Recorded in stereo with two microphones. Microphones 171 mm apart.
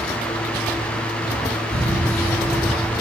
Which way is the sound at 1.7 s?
65° right (ahead or behind).